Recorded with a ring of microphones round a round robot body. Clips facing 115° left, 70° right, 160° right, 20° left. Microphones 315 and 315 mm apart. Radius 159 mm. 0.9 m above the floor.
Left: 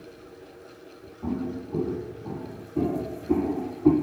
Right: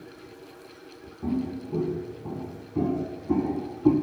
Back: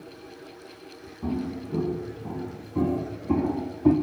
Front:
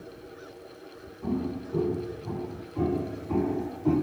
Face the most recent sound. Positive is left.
turn(degrees=-150)